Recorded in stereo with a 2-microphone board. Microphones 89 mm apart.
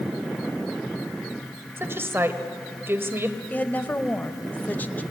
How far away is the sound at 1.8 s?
About 1.6 m.